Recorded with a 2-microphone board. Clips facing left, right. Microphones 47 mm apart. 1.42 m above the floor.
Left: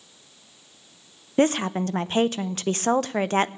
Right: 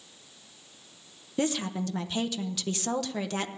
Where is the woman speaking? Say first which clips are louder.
Left 8 dB; 45° left (ahead or behind), 0.7 m.